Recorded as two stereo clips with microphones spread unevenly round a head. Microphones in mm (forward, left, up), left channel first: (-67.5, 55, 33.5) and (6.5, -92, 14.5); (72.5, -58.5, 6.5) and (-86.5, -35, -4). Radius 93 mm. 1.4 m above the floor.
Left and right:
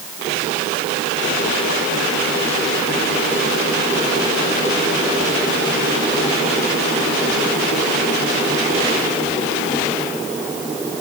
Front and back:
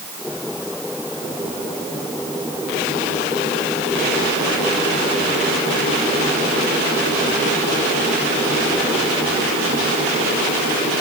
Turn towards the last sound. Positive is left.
No sound to turn to.